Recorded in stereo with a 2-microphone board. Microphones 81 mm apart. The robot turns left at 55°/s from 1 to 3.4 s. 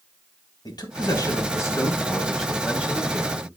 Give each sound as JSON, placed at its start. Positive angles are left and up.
{"t": 0.7, "sound": "a man speaking", "azimuth_deg": 80, "distance_m": 2.5}